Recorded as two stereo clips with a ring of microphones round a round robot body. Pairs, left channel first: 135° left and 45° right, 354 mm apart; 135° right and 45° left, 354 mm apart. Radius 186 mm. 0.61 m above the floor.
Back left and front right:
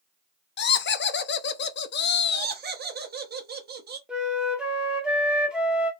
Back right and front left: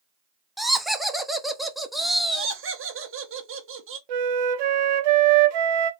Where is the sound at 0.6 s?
135° left, 0.6 m.